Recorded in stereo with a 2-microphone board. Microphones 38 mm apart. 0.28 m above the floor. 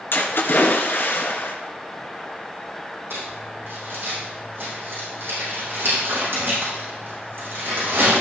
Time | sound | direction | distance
0.1 | a splash | 65° left (ahead or behind) | 2.5 m
3.1 | crumpling | 75° right (ahead or behind) | 6 m